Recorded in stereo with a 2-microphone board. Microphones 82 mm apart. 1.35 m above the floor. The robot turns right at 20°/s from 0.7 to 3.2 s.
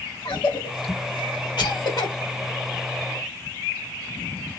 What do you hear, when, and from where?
0.2 s a cough: 75° left (ahead or behind), 2 m; by 2.1 s 55° left (ahead or behind), 2 m